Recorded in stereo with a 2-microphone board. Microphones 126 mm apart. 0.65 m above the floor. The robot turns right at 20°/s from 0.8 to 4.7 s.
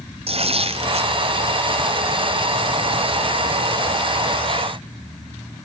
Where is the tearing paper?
50° right (ahead or behind), 1.8 m; by 1.1 s 55° right (ahead or behind), 1.8 m.